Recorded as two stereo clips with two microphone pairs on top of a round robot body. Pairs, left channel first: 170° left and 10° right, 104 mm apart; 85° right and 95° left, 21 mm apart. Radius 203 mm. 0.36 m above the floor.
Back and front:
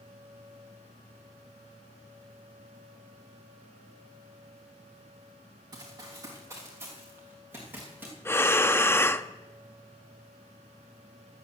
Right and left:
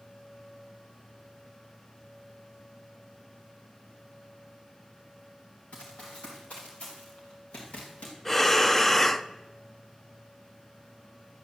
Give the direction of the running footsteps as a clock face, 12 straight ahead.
2 o'clock.